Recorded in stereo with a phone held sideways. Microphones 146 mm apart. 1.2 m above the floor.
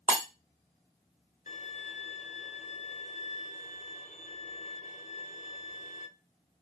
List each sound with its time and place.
0.1 s breaking glass: 60° right (ahead or behind), 1.5 m
1.5 s a violin: 50° left (ahead or behind), 0.6 m